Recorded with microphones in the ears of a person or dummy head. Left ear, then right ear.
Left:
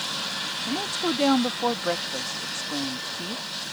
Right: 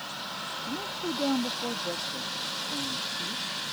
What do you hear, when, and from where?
0.7 s a woman speaking: 60° left (ahead or behind)